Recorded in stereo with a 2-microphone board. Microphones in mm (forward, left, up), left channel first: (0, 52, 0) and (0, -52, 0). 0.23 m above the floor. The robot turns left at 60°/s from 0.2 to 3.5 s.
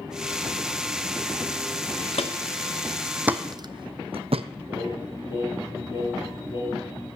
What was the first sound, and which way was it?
Footsteps, 75° left (ahead or behind).